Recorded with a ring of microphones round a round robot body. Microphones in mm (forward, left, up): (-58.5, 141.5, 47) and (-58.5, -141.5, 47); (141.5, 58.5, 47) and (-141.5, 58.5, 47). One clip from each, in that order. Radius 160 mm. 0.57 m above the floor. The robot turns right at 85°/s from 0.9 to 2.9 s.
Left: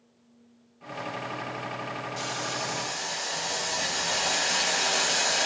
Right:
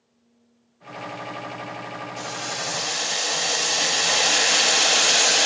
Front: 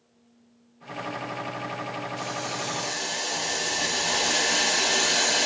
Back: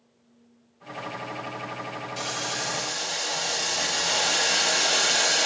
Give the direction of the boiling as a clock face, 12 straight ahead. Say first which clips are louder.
Right 3 dB, back 4 dB; 6 o'clock.